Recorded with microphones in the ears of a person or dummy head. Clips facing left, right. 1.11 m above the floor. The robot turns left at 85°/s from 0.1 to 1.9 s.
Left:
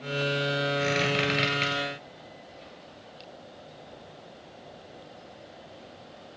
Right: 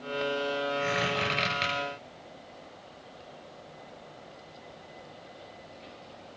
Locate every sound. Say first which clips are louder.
0.8 s a squeak: left 3 dB; 60° left (ahead or behind), 8.5 m; by 1.7 s 20° right (ahead or behind), 8.5 m